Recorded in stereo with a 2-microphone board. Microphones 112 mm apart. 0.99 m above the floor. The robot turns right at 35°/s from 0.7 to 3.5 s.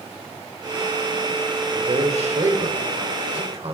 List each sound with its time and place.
1.7 s a man speaking: 125° right, 3.5 m; by 3.7 s 65° right, 3.5 m